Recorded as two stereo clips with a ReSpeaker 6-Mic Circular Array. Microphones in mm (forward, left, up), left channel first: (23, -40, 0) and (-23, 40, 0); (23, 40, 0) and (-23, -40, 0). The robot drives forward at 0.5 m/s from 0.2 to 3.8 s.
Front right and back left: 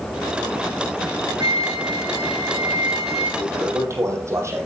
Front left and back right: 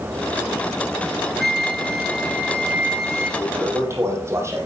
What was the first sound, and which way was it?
A flute, 150° left.